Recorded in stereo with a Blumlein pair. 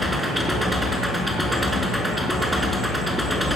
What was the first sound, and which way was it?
An engine running, straight ahead.